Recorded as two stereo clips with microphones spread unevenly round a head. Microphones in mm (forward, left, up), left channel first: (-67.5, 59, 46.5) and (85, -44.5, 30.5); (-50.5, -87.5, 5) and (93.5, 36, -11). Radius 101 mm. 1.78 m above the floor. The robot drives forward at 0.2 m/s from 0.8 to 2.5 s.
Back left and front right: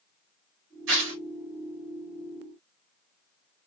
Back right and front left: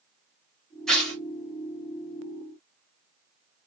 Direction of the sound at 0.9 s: 55° right.